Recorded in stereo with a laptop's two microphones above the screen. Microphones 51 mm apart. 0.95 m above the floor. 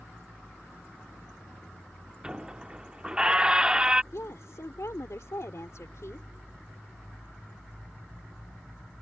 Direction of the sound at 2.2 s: 15° right (ahead or behind).